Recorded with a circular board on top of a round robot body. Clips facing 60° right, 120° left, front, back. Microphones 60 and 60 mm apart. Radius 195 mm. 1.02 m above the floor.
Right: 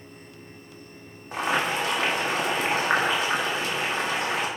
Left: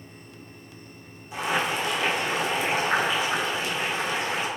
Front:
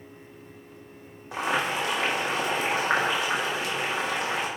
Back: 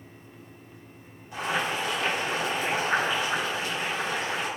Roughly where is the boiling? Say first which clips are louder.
Right 1 dB, front 2 dB; ahead.